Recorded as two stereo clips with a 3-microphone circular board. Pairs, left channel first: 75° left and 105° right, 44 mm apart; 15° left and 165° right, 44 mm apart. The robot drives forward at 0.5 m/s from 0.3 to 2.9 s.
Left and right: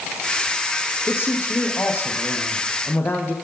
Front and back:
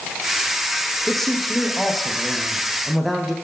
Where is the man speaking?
100° left, 6.5 m; by 3.3 s 110° left, 6.5 m.